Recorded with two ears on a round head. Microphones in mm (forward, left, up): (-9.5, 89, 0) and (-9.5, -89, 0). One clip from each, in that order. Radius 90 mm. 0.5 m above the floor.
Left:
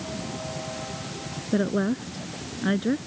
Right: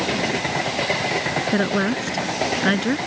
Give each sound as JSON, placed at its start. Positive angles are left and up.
{"t": 1.5, "sound": "a woman speaking", "side_deg": -50}